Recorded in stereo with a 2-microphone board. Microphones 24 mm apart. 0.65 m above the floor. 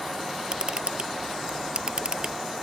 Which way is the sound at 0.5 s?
40° right (ahead or behind).